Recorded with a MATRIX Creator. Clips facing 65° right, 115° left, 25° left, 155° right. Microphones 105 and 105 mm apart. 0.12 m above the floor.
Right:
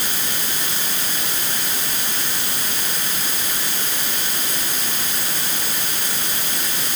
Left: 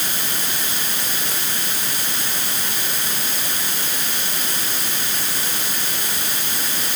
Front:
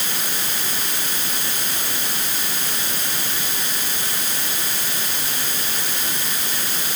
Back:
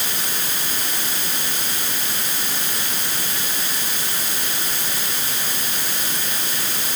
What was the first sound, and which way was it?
Only background noise.